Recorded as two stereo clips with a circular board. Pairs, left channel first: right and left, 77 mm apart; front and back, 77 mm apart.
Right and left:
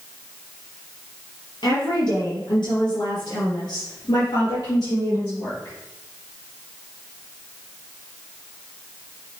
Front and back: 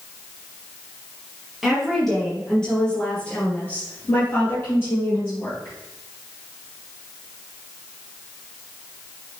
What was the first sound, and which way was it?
A woman speaking, 90° right.